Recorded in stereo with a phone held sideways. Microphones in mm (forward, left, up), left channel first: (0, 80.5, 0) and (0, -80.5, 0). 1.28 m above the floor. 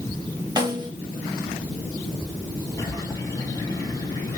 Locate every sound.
0.6 s a snare drum: 25° right (ahead or behind), 2.5 m
2.8 s a bird: 20° left (ahead or behind), 3 m